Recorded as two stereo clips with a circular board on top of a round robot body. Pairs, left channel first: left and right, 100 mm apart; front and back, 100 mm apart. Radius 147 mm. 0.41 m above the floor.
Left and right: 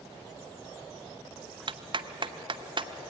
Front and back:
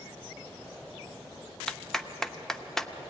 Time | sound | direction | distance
1.7 | a clap | 85° right | 0.9 m